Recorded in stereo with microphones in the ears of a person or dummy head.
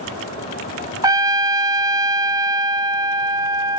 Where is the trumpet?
20° right (ahead or behind), 0.7 m.